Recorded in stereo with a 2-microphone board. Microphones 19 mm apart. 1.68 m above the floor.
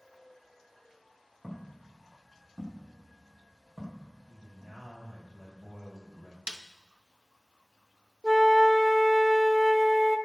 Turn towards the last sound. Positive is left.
turn(degrees=-15)  # may be behind; listen again after turning